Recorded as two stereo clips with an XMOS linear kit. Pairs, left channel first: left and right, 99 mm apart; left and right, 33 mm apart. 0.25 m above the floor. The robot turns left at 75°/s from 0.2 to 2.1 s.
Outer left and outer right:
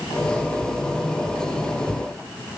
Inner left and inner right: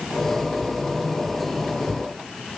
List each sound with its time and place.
Only background noise.